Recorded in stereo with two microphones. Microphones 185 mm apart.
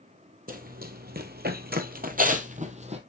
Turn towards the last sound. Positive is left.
turn(degrees=-35)  # may be behind; listen again after turning